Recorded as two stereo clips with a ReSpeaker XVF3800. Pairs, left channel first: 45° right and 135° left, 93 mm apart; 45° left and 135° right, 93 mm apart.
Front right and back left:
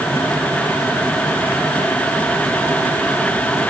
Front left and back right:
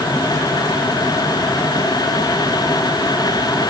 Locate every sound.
Only background noise.